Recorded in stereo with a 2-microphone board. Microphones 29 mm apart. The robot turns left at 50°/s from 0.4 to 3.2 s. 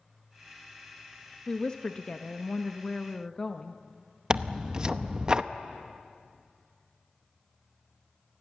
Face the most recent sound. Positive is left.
turn(degrees=-30)  # may be behind; listen again after turning